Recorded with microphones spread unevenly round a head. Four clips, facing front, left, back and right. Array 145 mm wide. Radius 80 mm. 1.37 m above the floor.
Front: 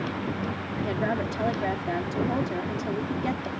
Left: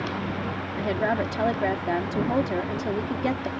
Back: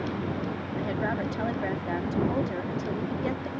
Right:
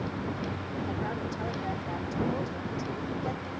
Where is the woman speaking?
90° left.